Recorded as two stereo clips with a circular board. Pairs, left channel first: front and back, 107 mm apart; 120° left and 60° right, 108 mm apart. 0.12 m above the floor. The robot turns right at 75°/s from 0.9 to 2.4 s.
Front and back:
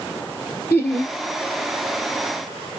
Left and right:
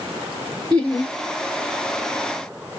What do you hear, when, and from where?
0.7 s laughter: 50° left, 1.3 m; by 1.1 s 65° left, 1.3 m